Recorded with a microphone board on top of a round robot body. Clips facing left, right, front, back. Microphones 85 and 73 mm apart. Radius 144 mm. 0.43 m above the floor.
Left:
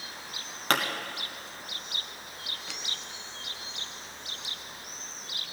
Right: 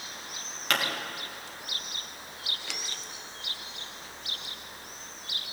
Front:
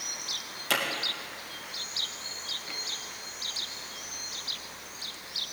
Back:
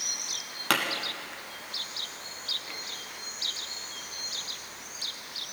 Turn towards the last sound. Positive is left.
turn(degrees=145)